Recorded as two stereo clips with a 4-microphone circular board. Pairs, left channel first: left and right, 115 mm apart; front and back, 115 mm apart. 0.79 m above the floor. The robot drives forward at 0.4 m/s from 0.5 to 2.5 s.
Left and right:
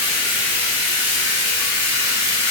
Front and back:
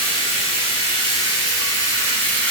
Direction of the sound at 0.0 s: 20° right.